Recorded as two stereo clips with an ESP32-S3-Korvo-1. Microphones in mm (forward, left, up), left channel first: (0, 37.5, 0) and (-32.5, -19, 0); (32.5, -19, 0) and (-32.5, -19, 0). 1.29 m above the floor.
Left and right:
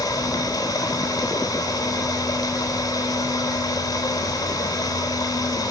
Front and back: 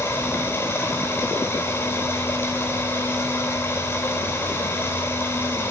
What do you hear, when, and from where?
0.0 s running water: 55° left, 3.5 m